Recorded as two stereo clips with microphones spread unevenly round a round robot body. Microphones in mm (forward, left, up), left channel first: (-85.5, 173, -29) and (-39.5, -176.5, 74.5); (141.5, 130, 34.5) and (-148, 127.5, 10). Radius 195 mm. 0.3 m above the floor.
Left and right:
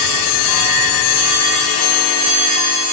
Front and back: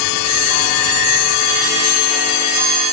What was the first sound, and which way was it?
Only background noise.